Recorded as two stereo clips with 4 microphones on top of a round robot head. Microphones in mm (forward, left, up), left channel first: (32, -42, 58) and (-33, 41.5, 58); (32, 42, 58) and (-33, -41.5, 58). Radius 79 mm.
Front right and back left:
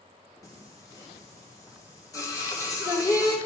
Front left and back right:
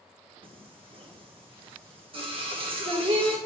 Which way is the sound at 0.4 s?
105° right.